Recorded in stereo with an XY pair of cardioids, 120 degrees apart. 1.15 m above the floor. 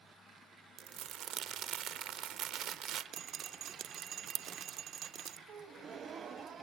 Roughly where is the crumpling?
Right.